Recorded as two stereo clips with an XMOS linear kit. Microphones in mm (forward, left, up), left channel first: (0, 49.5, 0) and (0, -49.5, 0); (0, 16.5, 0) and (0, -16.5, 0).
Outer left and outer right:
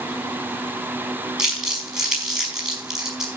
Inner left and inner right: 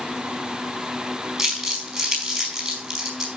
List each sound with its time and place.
1.4 s crumpling: 10° right (ahead or behind), 5 m